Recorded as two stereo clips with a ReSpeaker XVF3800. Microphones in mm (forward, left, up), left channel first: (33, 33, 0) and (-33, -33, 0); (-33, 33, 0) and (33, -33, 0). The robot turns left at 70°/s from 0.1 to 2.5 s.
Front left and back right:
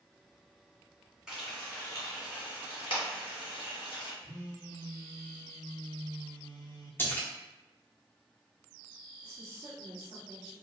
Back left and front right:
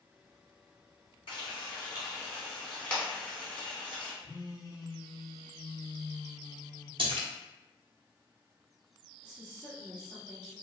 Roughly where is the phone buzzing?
Left.